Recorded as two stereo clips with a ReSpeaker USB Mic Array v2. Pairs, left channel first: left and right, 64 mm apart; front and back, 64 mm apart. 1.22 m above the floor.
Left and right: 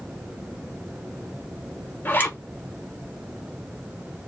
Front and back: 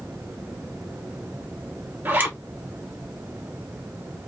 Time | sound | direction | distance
2.0 | a zipper | 130° left | 1.2 m